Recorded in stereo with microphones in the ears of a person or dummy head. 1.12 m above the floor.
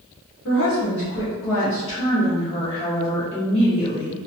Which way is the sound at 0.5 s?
60° left (ahead or behind).